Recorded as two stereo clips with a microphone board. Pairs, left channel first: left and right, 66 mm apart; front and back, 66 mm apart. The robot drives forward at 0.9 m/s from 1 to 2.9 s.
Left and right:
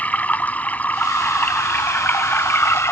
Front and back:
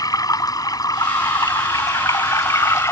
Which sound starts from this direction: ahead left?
Running water, at 0.0 s.